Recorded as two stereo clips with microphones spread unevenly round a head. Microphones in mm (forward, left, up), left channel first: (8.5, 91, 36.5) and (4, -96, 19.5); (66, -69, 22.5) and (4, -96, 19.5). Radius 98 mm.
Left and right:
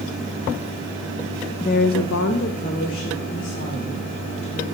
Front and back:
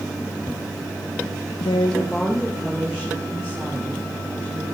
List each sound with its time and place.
1.6 s a woman speaking: 20° left, 0.5 m; by 4.7 s 135° left, 4.5 m